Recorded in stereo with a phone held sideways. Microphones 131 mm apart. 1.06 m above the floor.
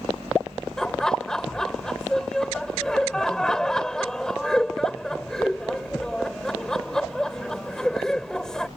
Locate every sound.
0.8 s laughter: 5° left (ahead or behind)